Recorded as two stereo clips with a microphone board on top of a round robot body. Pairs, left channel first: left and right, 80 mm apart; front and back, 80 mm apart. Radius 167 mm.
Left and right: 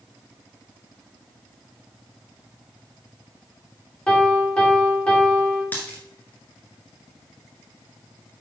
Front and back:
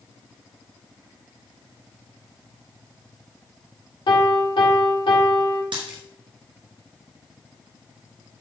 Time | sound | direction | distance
4.1 | a piano | 10° left | 3 m
5.7 | a dropped coin | 160° left | 1.3 m